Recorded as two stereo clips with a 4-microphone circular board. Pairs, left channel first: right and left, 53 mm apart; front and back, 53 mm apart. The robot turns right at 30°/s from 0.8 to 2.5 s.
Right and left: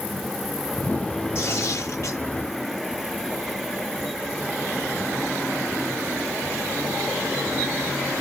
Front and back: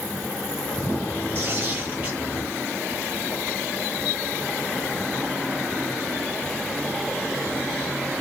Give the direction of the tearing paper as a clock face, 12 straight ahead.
4 o'clock.